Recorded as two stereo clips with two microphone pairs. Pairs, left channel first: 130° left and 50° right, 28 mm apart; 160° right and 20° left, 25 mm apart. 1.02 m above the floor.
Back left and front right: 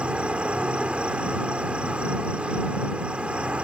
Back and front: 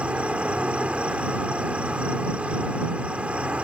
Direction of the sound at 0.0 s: 10° right.